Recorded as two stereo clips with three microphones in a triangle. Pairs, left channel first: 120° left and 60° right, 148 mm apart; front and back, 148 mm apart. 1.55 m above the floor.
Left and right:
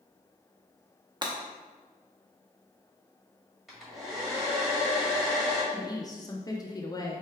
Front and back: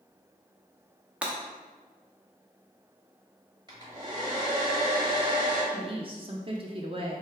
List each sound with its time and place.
1.2 s breaking glass: 100° right, 0.7 m
3.7 s a hair dryer: 145° right, 1.5 m
5.7 s a woman speaking: 170° left, 0.5 m